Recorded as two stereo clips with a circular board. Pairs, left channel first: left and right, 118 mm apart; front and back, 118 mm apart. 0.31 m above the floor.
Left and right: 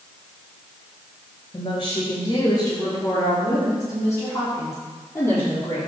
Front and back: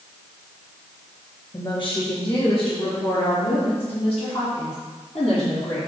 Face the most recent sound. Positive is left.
turn(degrees=20)